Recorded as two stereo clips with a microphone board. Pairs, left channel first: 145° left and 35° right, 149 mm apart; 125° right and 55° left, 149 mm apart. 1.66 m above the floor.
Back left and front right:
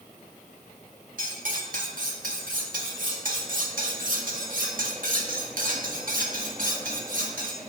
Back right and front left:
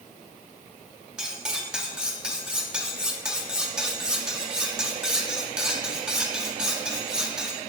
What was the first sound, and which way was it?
Cutlery clinking, 30° right.